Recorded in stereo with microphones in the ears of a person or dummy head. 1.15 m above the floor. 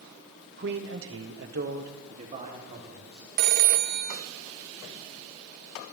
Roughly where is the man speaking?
Right.